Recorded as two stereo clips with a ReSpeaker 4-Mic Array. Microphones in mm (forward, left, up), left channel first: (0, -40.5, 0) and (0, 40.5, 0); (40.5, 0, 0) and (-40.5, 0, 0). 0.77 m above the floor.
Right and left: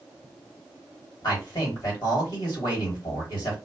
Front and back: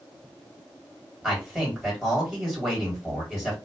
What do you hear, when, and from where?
1.2 s a man speaking: 95° right, 2.0 m